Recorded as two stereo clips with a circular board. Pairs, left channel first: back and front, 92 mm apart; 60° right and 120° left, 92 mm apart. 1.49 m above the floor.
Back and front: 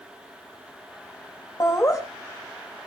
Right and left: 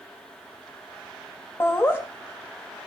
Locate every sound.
1.6 s laughter: 125° right, 3 m